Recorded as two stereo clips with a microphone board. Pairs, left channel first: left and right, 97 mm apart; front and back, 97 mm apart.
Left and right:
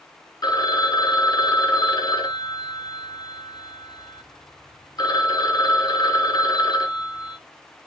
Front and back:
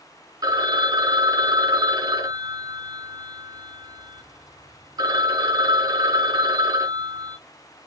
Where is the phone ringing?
135° left, 0.7 m.